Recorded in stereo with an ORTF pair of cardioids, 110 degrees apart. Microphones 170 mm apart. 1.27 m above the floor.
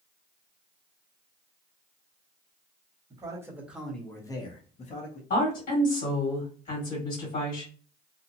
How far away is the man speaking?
About 1.1 m.